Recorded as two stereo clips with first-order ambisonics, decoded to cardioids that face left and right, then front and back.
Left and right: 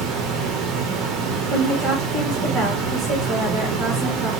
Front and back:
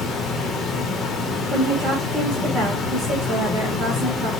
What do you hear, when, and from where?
0.0 s running water: 75° right, 0.8 m
1.5 s a woman speaking: 125° right, 1.7 m